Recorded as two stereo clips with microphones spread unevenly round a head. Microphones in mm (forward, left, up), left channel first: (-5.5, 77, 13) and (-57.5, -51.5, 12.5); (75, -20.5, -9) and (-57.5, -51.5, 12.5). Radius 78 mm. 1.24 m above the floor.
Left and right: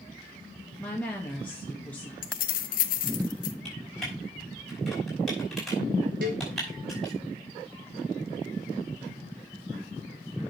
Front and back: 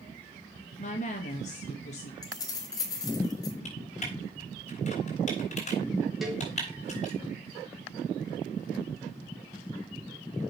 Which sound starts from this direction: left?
Keys jangling, at 2.2 s.